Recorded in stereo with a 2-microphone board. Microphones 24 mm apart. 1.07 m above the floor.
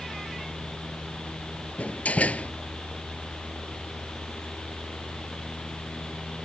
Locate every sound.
1.8 s a door slam: 85° left